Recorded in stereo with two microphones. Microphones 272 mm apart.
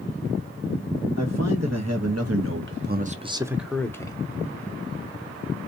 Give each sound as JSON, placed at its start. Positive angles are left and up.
{"t": 1.2, "sound": "a man speaking", "side_deg": -70, "distance_m": 1.2}